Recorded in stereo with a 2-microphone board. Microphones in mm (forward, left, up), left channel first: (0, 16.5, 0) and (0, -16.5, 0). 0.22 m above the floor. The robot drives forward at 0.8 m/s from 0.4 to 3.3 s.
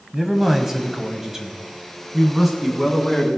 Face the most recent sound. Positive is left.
turn(degrees=-5)  # may be behind; listen again after turning